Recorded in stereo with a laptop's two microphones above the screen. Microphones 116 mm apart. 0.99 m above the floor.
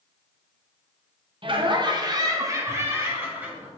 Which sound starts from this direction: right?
Laughter, at 1.4 s.